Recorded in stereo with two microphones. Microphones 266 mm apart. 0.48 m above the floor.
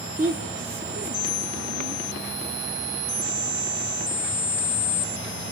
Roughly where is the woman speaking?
Right.